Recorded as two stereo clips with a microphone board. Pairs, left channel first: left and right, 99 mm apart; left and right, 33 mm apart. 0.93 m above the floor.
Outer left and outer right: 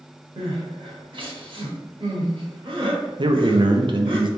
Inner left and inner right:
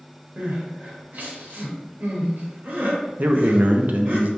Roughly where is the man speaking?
Right.